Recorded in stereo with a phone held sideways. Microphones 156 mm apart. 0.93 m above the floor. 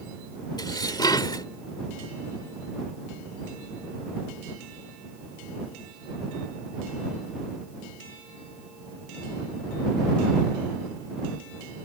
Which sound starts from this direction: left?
Dishes clattering, at 0.6 s.